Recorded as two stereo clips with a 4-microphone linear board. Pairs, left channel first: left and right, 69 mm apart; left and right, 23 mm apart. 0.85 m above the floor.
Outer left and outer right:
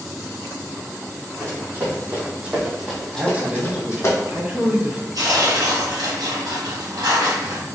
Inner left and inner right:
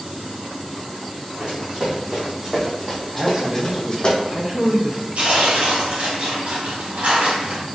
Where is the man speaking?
20° right (ahead or behind), 0.8 m.